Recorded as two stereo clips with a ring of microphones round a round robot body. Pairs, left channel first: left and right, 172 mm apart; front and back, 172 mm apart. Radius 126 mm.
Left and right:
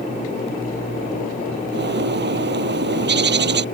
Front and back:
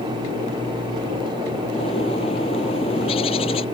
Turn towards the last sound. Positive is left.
turn(degrees=-70)